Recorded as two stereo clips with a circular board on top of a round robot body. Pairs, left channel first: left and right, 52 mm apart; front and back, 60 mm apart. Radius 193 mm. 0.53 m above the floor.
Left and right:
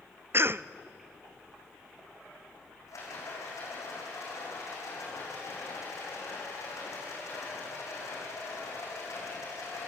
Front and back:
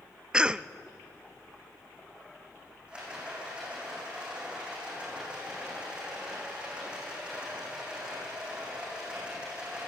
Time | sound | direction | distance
0.3 | a cough | 110° right | 0.8 m
2.9 | a rattle | 105° left | 7 m